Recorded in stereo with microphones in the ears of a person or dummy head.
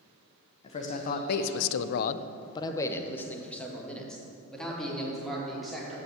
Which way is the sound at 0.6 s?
30° left (ahead or behind).